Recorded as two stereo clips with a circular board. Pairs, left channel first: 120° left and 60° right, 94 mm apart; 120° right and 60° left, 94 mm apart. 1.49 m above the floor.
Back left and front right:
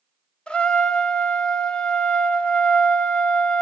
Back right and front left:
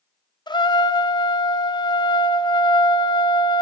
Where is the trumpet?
160° right, 0.7 m.